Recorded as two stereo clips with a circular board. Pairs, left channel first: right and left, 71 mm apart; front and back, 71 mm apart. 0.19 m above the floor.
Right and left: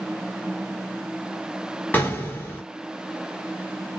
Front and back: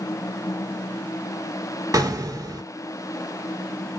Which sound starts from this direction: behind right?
An explosion, at 1.9 s.